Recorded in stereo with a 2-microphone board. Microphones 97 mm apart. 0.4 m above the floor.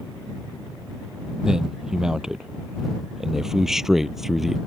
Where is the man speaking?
5° right (ahead or behind); by 4.6 s centre (ahead or behind).